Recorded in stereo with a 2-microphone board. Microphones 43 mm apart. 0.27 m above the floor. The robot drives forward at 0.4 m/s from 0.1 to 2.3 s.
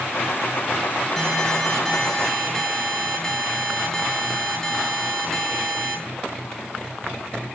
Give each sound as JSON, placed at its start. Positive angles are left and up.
{"t": 1.2, "sound": "an alarm", "side_deg": 10, "distance_m": 5.5}